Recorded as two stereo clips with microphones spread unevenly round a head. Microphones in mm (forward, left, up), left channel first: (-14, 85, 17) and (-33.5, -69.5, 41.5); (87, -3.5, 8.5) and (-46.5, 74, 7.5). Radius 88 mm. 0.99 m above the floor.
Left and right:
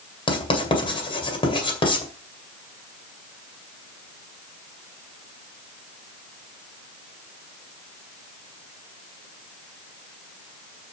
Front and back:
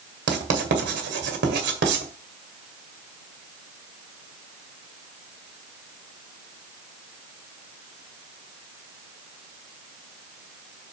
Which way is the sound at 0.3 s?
145° left.